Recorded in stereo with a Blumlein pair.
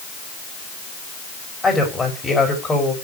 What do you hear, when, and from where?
1.6 s a woman speaking: 10° left, 5 m